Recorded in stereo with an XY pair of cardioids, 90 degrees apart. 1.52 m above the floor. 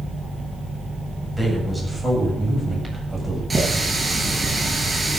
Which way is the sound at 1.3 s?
10° left.